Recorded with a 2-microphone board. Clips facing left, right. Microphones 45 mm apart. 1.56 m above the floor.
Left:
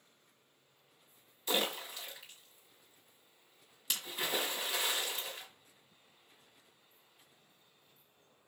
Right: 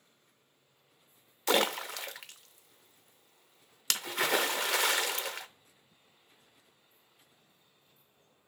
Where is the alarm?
I don't hear an alarm.